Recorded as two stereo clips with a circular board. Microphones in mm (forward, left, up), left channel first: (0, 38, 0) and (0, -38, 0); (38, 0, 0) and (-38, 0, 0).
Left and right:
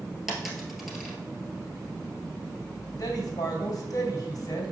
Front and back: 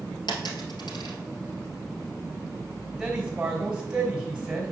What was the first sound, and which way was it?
A dropped coin, 5° right.